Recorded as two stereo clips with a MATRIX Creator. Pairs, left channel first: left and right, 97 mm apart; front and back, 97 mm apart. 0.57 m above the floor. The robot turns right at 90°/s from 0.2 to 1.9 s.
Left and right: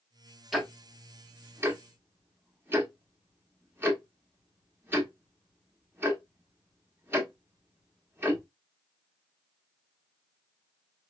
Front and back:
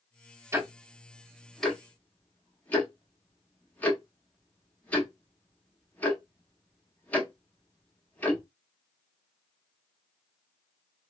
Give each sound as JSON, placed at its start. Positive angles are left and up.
{"t": 0.5, "sound": "ticking", "azimuth_deg": -175, "distance_m": 1.2}